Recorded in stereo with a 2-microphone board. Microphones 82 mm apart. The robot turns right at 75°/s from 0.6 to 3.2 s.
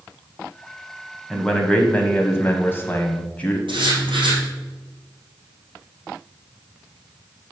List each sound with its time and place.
1.3 s a man speaking: centre (ahead or behind), 1.0 m; by 3.6 s 15° left (ahead or behind), 1.0 m
3.7 s writing: 85° right, 4 m